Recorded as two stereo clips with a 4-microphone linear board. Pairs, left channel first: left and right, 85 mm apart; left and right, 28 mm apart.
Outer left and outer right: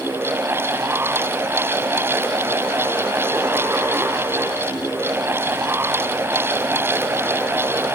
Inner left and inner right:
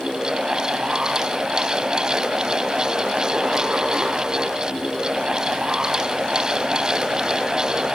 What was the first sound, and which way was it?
Only background noise.